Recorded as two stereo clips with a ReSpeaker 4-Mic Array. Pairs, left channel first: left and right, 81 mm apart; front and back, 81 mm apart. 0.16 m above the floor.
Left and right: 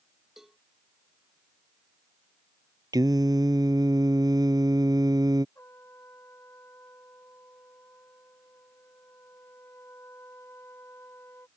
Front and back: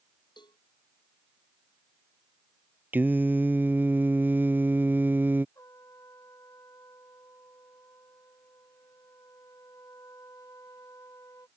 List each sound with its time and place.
0.4 s a cowbell: 5° right
2.9 s singing: 115° right
5.5 s a trumpet: 40° left